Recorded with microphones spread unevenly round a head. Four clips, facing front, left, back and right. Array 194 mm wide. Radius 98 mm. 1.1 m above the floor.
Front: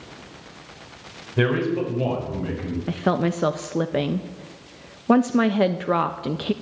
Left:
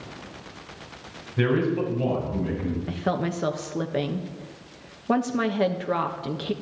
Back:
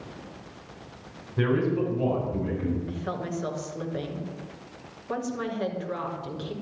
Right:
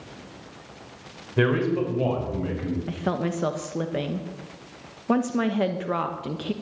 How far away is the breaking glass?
No breaking glass in this recording.